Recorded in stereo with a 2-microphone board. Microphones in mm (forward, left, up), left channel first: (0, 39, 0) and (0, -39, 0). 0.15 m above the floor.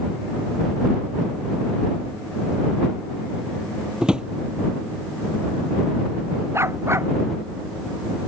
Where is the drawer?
10° right (ahead or behind).